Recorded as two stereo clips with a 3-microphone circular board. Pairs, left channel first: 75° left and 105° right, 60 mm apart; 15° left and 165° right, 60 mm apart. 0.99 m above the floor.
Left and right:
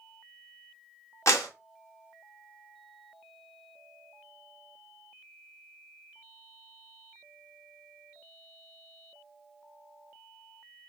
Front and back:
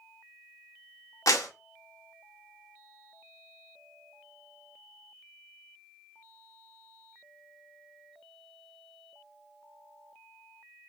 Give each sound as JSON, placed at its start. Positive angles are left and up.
{"t": 1.3, "sound": "a clap", "azimuth_deg": 35, "distance_m": 1.0}